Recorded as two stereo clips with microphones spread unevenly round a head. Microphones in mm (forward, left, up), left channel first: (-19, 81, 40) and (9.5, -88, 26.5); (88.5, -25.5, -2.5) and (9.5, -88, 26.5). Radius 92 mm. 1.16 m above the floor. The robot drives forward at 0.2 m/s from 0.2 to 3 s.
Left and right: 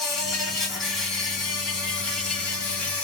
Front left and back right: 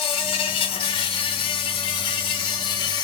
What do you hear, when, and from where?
0.0 s an insect: 15° left, 1.2 m; by 3.0 s 35° left, 0.9 m